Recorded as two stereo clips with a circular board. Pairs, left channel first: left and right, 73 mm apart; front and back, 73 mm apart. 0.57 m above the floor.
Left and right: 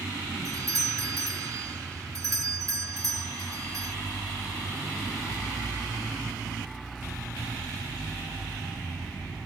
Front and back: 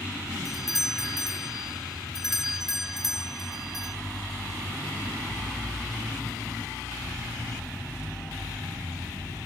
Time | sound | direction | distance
0.5 | a doorbell | 95° right | ?